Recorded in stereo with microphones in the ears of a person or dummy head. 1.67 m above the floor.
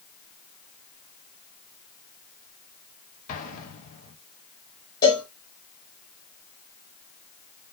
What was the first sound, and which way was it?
An explosion, 45° left (ahead or behind).